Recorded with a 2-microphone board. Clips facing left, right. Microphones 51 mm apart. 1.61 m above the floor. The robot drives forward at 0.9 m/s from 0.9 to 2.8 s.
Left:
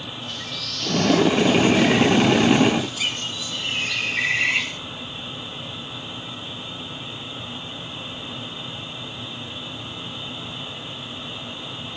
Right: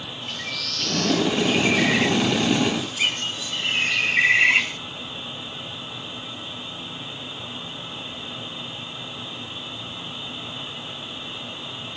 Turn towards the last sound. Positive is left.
turn(degrees=-35)  # may be behind; listen again after turning